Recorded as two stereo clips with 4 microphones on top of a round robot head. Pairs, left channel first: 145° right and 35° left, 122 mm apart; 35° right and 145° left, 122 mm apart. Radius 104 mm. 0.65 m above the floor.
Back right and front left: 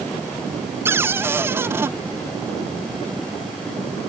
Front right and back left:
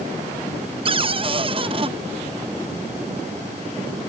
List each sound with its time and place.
0.8 s a cupboard door: 105° left